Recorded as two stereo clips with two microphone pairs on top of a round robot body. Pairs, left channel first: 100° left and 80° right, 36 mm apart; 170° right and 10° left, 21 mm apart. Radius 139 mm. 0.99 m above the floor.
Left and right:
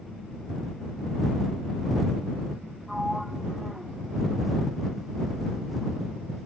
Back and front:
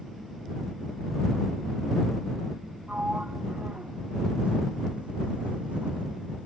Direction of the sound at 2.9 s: 5° left.